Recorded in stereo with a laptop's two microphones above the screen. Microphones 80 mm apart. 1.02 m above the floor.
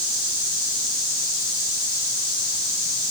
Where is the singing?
I don't hear singing.